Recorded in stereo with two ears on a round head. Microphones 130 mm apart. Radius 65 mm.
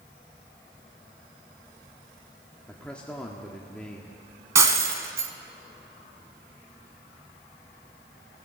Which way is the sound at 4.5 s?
20° right (ahead or behind).